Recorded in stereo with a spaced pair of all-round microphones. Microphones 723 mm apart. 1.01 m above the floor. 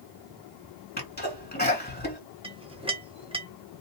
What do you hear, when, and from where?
1.0 s a sneeze: 15° left (ahead or behind), 1.8 m
2.4 s a clink: 10° right (ahead or behind), 0.5 m